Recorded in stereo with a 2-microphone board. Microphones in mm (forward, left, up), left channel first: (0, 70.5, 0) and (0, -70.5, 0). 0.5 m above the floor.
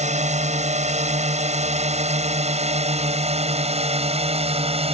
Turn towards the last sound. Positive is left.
turn(degrees=-45)  # may be behind; listen again after turning